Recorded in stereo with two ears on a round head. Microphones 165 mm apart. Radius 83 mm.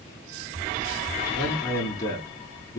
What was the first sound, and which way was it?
A man speaking, 20° left (ahead or behind).